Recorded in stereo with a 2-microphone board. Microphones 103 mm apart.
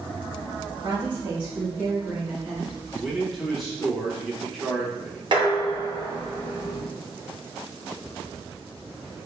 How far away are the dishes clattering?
About 1.0 m.